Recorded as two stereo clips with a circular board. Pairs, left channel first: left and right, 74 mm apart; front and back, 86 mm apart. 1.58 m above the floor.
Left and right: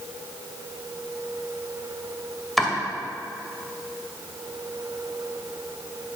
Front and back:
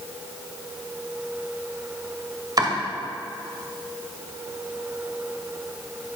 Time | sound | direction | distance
2.6 | chopping | straight behind | 1.9 m